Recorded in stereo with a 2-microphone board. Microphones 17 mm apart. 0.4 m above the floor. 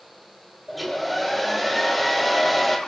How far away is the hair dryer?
About 6.5 m.